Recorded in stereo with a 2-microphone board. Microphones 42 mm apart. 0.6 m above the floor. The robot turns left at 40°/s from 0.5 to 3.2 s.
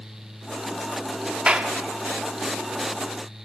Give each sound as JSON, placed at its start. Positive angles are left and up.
{"t": 1.5, "sound": "a clap", "side_deg": -25, "distance_m": 1.0}